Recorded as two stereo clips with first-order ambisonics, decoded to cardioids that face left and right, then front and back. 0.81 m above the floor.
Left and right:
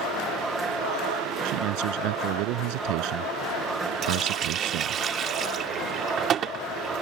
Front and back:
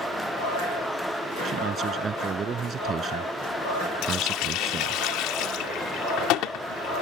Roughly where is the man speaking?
Behind right.